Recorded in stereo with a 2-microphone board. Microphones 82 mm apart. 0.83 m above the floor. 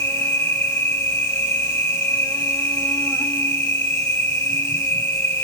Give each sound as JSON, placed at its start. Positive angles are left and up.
{"t": 0.0, "sound": "an insect", "side_deg": 30, "distance_m": 1.5}